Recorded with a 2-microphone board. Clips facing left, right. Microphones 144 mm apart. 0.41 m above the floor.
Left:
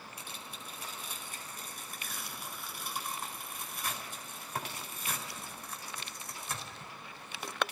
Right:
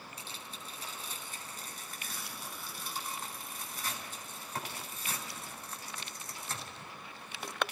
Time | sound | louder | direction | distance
0.2 | tearing paper | even | 10° left (ahead or behind) | 4.5 m